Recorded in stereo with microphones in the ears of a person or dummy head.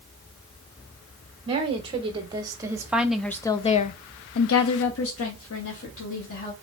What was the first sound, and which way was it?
A woman speaking, 35° right (ahead or behind).